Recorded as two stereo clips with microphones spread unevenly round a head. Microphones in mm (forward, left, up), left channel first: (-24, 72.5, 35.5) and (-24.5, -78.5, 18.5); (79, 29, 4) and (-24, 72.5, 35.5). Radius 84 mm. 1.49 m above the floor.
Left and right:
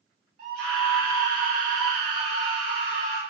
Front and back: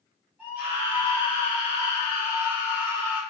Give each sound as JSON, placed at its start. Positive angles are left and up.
{"t": 0.4, "sound": "a scream", "azimuth_deg": -120, "distance_m": 1.2}